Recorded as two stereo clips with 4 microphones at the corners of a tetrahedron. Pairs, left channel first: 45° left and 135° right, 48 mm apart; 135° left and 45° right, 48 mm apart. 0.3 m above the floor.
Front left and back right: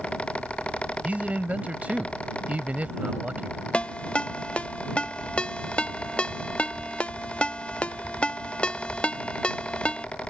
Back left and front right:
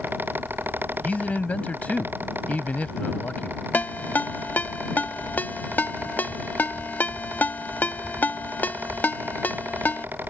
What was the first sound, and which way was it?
A man speaking, straight behind.